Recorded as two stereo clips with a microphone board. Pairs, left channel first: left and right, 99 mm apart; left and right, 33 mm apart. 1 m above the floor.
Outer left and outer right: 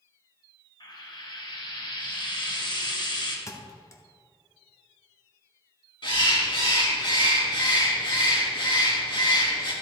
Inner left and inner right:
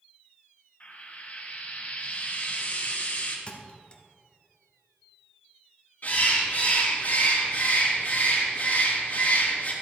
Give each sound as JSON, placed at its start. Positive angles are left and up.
{"t": 0.8, "sound": "frying", "side_deg": 50, "distance_m": 1.5}
{"t": 3.5, "sound": "a thud", "side_deg": 30, "distance_m": 0.9}
{"t": 6.0, "sound": "a bird", "side_deg": 50, "distance_m": 3.5}